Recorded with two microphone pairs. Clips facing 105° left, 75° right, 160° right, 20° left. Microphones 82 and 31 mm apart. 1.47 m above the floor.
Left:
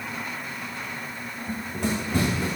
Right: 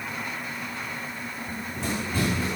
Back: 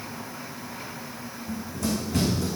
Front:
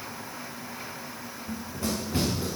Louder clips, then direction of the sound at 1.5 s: Left 4 dB, back 3 dB; 85° left.